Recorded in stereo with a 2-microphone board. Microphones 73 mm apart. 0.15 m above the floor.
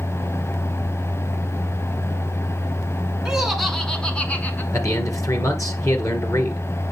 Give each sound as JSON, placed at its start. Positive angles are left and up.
{"t": 3.2, "sound": "laughter", "side_deg": -10, "distance_m": 1.4}
{"t": 4.7, "sound": "a man speaking", "side_deg": 50, "distance_m": 2.0}